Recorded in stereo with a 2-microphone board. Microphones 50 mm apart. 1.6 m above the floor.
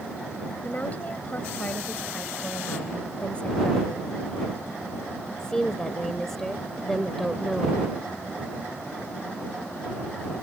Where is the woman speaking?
35° left (ahead or behind); by 7.8 s centre (ahead or behind).